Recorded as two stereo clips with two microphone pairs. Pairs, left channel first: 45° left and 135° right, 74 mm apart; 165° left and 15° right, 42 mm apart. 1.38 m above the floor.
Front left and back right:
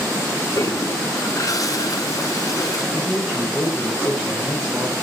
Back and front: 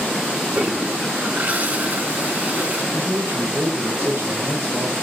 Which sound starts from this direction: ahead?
A man speaking, at 2.9 s.